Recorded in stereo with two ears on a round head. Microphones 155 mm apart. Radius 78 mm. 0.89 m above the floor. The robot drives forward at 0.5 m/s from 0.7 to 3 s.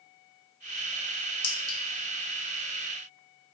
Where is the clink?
30° left (ahead or behind), 0.9 m; by 1.8 s 25° left (ahead or behind), 1.1 m.